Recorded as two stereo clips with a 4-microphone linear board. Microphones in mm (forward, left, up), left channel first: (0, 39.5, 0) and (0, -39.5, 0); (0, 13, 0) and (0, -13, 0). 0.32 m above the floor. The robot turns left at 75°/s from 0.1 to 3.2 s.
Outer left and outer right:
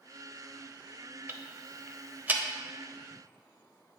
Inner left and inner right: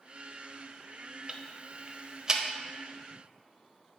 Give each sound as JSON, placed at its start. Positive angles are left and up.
{"t": 1.3, "sound": "ticking", "side_deg": -30, "distance_m": 0.6}